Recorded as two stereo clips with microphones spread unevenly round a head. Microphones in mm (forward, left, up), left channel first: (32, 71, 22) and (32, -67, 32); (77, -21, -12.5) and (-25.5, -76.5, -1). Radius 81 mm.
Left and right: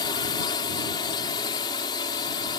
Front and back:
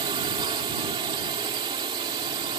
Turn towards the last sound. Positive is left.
turn(degrees=150)